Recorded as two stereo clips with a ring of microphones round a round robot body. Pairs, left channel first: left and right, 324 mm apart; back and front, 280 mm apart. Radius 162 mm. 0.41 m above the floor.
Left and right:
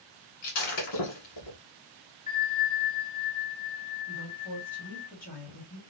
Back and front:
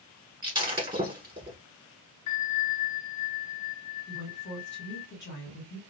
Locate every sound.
0.4 s breaking glass: 75° left, 1.6 m
2.3 s a bell: 155° left, 0.8 m
4.1 s a woman speaking: 145° left, 1.6 m